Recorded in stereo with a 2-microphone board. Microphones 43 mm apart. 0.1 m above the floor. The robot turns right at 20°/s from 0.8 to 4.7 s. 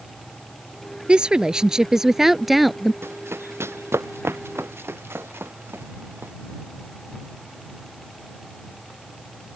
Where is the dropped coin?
No dropped coin in this recording.